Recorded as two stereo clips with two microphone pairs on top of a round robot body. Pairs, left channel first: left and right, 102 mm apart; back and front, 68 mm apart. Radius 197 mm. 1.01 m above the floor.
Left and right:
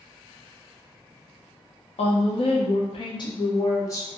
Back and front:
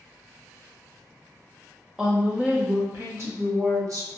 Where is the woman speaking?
85° left, 1.0 m; by 4.1 s 30° left, 1.4 m.